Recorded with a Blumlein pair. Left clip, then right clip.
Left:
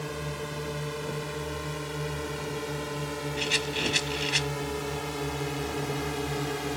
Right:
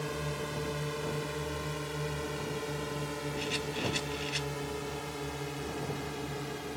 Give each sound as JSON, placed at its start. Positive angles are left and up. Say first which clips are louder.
{"t": 0.0, "sound": "a drone", "louder": "left 1 dB", "azimuth_deg": 5}
{"t": 3.4, "sound": "a rattle", "louder": "left 8 dB", "azimuth_deg": 65}